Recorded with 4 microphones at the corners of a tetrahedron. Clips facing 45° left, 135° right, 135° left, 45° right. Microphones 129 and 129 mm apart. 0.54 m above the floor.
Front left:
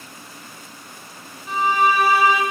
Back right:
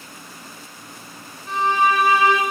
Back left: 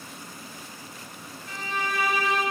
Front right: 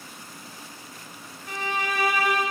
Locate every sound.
1.5 s a violin: 45° right, 1.9 m